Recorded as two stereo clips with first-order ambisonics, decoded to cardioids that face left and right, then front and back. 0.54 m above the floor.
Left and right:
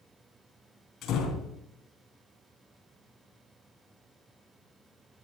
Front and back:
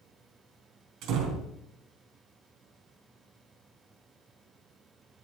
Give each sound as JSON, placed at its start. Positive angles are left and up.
{"t": 1.0, "sound": "a door slam", "azimuth_deg": 140, "distance_m": 3.5}